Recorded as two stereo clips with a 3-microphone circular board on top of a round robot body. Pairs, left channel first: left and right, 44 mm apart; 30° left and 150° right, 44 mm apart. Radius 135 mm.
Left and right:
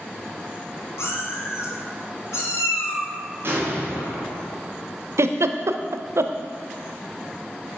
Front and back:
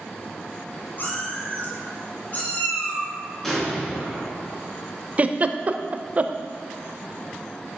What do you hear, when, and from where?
1.0 s a cat meowing: 75° left, 1.8 m; by 3.1 s 90° left, 3.5 m
3.4 s an explosion: 50° right, 3 m
5.2 s a giggle: 90° right, 0.7 m